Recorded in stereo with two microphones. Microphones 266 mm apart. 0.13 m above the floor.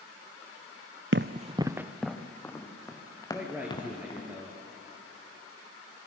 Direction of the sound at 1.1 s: 50° right (ahead or behind).